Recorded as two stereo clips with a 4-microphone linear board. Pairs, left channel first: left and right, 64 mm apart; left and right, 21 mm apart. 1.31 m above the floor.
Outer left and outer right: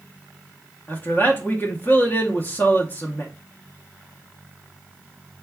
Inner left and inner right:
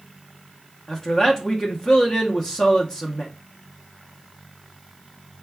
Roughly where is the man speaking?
Left.